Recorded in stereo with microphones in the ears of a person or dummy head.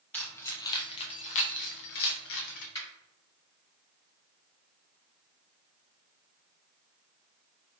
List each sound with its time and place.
0.1 s keys jangling: 5° left (ahead or behind), 1.0 m; by 2.6 s 60° left (ahead or behind), 1.0 m
2.8 s a finger snap: 15° left (ahead or behind), 1.9 m